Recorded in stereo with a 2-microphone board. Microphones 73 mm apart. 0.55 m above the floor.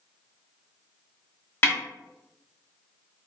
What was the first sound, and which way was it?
A snare drum, 30° left (ahead or behind).